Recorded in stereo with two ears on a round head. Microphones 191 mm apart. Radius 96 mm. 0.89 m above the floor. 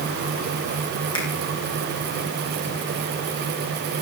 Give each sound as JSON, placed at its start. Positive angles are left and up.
{"t": 1.1, "sound": "a finger snap", "side_deg": 20, "distance_m": 9.0}